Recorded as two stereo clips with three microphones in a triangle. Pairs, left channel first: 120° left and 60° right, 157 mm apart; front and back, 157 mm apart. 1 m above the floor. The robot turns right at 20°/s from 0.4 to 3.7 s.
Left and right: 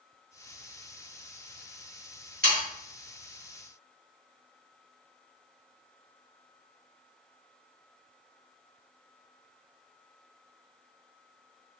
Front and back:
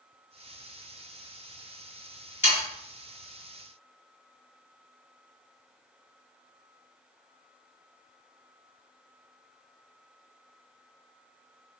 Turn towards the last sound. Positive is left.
turn(degrees=-15)